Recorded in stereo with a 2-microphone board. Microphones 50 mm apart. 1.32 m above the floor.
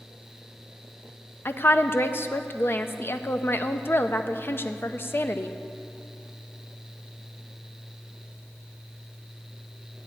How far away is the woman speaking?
About 0.6 m.